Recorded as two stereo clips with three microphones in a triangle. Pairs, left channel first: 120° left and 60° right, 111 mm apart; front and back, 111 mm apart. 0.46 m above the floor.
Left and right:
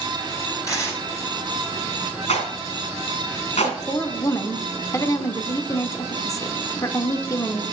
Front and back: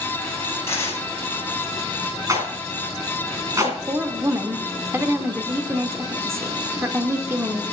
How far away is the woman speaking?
About 0.9 m.